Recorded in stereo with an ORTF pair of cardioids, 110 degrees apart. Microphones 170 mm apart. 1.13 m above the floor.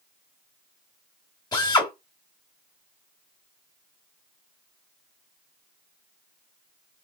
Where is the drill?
25° left, 2 m.